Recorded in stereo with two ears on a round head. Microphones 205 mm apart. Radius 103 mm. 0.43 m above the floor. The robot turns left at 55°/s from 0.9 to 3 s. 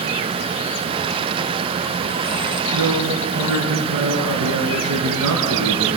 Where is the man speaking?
75° right (ahead or behind), 5 m; by 5.9 s 80° right, 5 m.